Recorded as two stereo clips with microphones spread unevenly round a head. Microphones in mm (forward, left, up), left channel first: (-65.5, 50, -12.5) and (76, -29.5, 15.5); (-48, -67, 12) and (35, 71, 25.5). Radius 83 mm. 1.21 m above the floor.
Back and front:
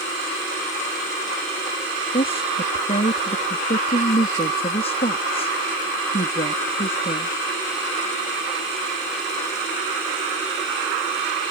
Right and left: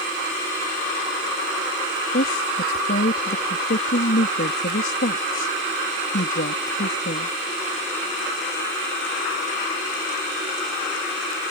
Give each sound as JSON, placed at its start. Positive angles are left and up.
{"t": 2.1, "sound": "a woman speaking", "azimuth_deg": -155}